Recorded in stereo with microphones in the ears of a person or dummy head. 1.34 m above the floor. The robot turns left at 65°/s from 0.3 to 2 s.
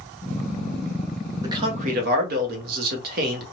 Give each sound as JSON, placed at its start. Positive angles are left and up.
{"t": 1.4, "sound": "a man speaking", "azimuth_deg": -25, "distance_m": 1.2}